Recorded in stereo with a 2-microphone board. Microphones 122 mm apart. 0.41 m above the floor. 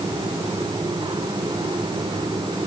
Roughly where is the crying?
I don't hear crying.